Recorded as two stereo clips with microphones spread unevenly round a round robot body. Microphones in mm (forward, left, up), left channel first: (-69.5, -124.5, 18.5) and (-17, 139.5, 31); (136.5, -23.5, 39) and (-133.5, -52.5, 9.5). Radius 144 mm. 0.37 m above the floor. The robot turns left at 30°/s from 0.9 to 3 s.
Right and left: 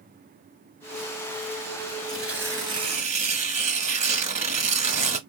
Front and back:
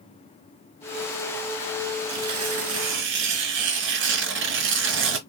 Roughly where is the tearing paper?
Behind.